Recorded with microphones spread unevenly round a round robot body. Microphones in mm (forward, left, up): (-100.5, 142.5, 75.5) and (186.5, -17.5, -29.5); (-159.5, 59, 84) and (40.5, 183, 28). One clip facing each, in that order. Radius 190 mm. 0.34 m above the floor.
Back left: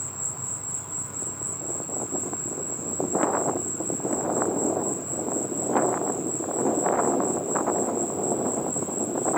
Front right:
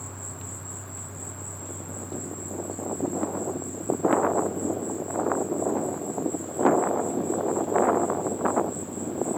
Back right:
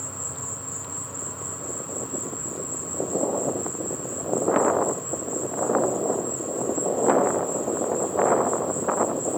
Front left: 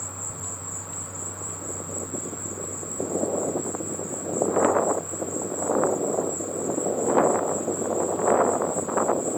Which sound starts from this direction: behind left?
An insect, at 0.0 s.